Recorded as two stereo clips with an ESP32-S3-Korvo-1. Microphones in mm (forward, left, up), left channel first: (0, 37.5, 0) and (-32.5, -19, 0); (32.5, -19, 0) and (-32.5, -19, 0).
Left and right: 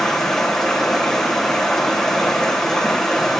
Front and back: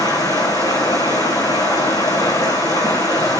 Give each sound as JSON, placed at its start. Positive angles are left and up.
{"t": 0.0, "sound": "running water", "azimuth_deg": -20, "distance_m": 2.0}